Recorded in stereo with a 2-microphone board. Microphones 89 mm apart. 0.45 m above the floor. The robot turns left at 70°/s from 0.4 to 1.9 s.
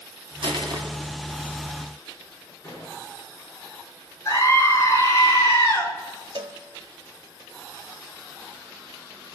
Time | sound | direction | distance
0.4 | crushing | 75° right (ahead or behind) | 2 m
2.6 | an explosion | 25° left (ahead or behind) | 7 m
4.2 | a scream | 35° left (ahead or behind) | 6 m
6.3 | a cowbell | 65° right (ahead or behind) | 0.7 m